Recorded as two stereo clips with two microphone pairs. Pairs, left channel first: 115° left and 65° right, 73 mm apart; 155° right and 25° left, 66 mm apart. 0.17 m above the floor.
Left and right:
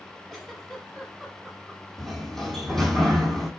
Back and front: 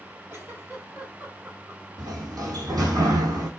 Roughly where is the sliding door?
Ahead left.